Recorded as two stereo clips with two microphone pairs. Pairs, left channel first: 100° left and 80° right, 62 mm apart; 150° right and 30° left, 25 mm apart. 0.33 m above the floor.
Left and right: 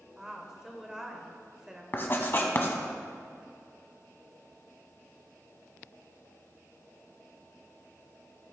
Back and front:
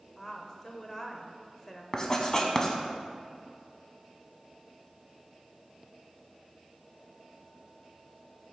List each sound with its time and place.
0.2 s a woman speaking: 150° right, 0.8 m
1.9 s writing: 150° left, 0.9 m